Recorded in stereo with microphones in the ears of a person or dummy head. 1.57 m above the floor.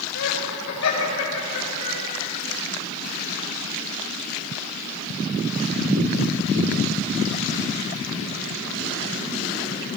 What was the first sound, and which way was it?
Laughter, 85° left.